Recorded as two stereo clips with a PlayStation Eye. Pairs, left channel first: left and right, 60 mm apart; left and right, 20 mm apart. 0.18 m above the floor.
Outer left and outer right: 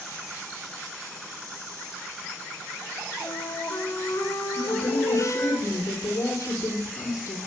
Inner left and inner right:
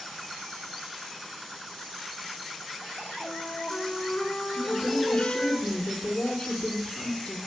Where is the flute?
35° left (ahead or behind), 5 m.